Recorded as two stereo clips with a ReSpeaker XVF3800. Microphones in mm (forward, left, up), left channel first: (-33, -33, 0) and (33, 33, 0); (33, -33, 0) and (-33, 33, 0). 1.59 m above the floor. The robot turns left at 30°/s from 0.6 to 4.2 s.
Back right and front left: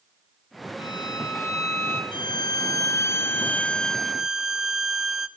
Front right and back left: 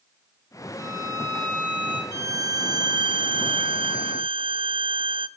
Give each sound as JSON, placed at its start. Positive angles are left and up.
{"t": 0.8, "sound": "a violin", "azimuth_deg": -165, "distance_m": 4.5}
{"t": 2.1, "sound": "a violin", "azimuth_deg": -165, "distance_m": 0.8}